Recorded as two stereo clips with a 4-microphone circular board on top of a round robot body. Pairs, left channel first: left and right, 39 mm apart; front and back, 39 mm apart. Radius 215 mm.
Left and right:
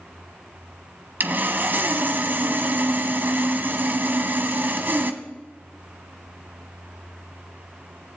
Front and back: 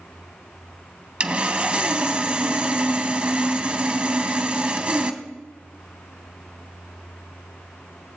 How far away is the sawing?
About 1.1 m.